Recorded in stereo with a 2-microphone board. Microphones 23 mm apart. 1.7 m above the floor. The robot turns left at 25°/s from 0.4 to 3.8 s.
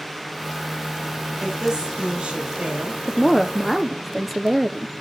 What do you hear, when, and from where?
1.4 s a woman speaking: 25° right, 3.5 m; by 3.0 s 65° right, 3.5 m
3.1 s a woman speaking: centre (ahead or behind), 0.6 m; by 4.9 s 5° right (ahead or behind), 0.6 m